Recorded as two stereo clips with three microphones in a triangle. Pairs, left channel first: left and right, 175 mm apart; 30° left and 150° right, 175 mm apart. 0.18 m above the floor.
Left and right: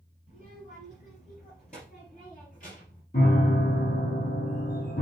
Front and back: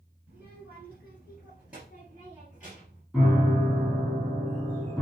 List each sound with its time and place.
0.3 s a child speaking: 130° left, 1.8 m
3.1 s a piano: 125° left, 3 m